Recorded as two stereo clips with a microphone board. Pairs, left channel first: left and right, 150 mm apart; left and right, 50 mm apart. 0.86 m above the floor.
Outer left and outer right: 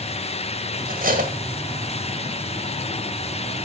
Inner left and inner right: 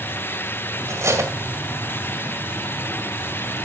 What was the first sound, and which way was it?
Cutlery clinking, 70° right (ahead or behind).